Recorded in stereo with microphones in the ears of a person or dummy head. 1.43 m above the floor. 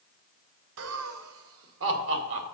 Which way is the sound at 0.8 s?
80° right.